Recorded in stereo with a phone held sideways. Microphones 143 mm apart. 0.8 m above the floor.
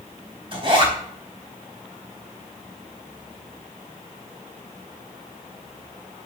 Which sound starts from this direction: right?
A zipper, at 0.5 s.